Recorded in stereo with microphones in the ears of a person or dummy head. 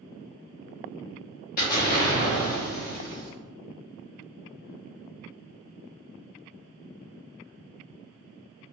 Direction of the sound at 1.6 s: 45° left (ahead or behind).